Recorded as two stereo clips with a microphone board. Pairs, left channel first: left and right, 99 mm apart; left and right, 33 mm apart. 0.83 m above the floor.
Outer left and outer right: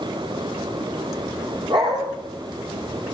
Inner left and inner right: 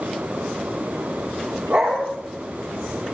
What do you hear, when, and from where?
1.7 s a dog barking: 55° right (ahead or behind), 7.5 m